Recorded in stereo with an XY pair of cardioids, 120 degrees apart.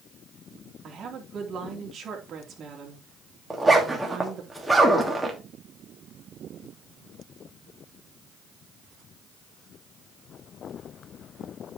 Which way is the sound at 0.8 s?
45° right.